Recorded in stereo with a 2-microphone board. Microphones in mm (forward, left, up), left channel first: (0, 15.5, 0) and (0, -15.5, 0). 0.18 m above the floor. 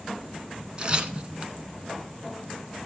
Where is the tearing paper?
35° right (ahead or behind), 0.7 m.